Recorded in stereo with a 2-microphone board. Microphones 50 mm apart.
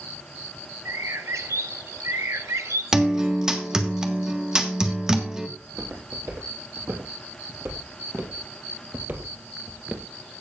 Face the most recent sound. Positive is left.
turn(degrees=-25)  # may be behind; listen again after turning